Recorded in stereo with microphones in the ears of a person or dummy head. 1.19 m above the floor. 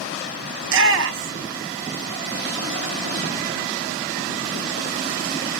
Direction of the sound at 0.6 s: 60° right (ahead or behind).